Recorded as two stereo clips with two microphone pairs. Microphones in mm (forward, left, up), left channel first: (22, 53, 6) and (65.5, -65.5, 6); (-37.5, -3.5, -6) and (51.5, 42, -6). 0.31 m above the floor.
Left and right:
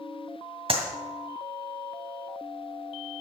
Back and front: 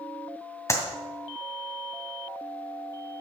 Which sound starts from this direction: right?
A clap, at 0.7 s.